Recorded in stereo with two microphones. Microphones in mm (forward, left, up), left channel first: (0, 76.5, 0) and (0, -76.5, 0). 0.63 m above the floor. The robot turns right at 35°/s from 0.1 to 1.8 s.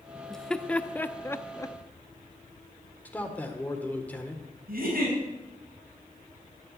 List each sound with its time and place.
0.3 s laughter: centre (ahead or behind), 0.8 m; by 1.8 s 20° left (ahead or behind), 0.8 m
3.0 s a man speaking: 10° left (ahead or behind), 1.6 m
4.7 s a giggle: 75° right (ahead or behind), 5.5 m